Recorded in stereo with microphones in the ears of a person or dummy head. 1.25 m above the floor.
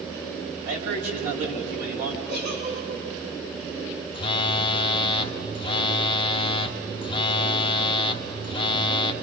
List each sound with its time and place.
0.7 s a man speaking: 50° right (ahead or behind), 6 m
2.3 s a giggle: 55° right (ahead or behind), 8 m
4.1 s a phone buzzing: 30° left (ahead or behind), 1.1 m